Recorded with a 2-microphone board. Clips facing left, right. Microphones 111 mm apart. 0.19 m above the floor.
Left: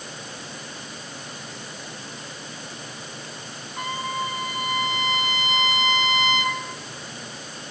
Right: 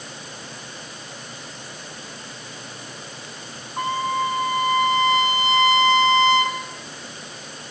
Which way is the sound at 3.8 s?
35° right (ahead or behind).